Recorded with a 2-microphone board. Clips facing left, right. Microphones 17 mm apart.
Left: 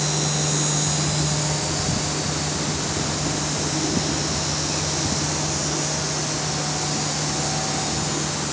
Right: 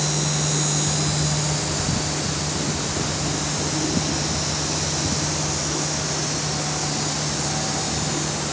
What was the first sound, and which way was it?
Only background noise.